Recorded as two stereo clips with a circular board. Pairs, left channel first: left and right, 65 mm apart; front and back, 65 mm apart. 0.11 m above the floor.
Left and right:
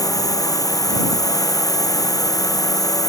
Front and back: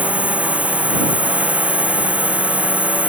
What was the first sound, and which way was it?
A drone, 110° left.